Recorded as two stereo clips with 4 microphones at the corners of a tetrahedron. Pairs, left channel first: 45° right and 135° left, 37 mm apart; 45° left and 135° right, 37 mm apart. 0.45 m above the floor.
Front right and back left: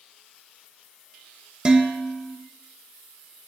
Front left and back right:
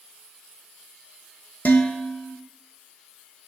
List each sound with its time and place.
1.6 s dishes clattering: 75° left, 0.9 m